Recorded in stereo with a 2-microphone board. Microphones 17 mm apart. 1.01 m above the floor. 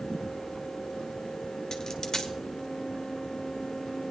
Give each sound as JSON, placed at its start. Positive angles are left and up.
{"t": 1.7, "sound": "a dropped coin", "side_deg": 30, "distance_m": 1.4}